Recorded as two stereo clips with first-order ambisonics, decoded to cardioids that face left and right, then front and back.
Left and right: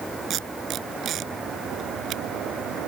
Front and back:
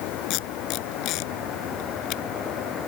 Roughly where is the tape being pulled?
Ahead right.